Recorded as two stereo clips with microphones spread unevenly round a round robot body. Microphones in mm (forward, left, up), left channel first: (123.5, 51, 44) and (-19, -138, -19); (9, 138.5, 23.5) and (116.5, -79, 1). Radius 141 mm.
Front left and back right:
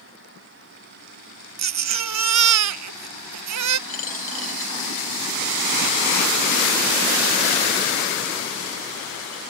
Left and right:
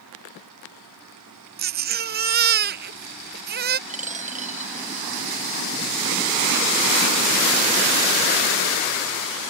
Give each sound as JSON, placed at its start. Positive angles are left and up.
{"t": 1.6, "sound": "a baby crying", "azimuth_deg": -125}
{"t": 3.9, "sound": "a dropped coin", "azimuth_deg": 0}